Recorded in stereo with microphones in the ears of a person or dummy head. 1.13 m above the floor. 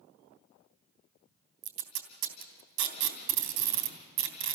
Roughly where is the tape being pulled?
Right.